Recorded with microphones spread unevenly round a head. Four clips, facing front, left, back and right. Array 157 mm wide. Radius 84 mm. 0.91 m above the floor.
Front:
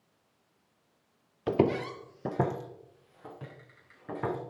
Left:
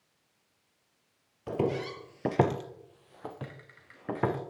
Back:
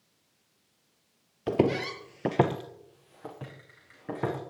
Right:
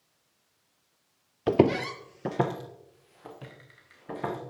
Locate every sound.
1.5 s footsteps: 100° right, 1.1 m; by 4.4 s 115° left, 4 m